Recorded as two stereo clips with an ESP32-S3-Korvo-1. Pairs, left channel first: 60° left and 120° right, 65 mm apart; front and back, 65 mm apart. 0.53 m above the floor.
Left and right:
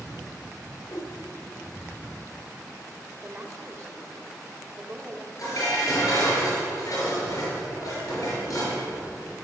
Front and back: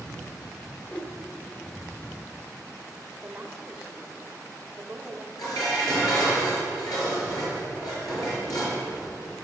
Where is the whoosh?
65° left, 0.9 m.